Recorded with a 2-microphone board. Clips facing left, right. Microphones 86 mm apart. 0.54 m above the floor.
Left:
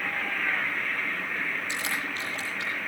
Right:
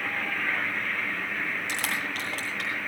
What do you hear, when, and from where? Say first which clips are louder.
1.7 s crushing: right 1 dB; 85° right, 9.5 m